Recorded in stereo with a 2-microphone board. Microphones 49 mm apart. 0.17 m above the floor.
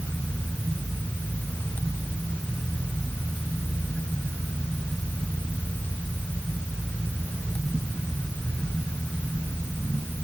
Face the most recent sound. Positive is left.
No sound to turn to.